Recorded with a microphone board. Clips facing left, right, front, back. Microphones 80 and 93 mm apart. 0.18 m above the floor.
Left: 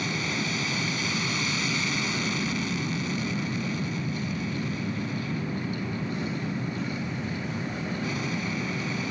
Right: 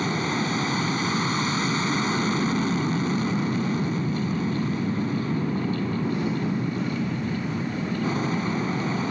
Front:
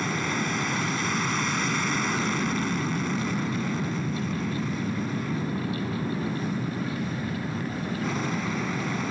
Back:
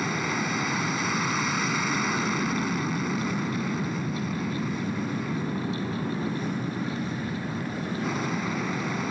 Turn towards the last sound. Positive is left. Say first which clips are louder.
# right 5 dB, even
turn(degrees=-95)